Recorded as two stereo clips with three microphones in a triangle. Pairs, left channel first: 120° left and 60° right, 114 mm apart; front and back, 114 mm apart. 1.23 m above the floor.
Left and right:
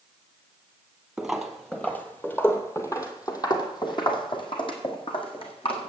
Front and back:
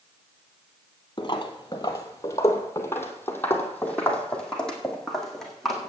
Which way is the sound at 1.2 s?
25° left.